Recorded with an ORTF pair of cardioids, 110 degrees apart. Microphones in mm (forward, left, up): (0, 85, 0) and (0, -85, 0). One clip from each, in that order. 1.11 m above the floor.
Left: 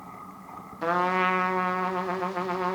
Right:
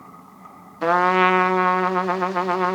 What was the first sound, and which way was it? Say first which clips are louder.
A trumpet: right 7 dB; 35° right.